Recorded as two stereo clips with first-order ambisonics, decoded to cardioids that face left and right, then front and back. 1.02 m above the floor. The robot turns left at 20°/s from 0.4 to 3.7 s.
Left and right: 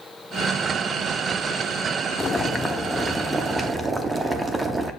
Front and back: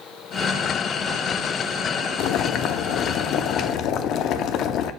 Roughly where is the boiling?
Ahead.